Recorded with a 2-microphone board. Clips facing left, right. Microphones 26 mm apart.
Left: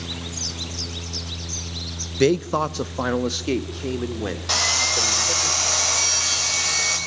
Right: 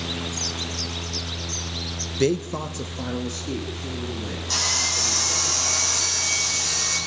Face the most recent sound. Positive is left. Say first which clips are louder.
# left 3 dB
turn(degrees=75)  # may be behind; listen again after turning